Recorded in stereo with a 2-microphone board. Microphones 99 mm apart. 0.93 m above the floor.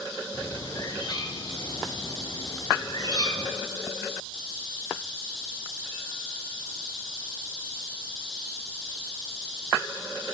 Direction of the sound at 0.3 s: 45° left (ahead or behind).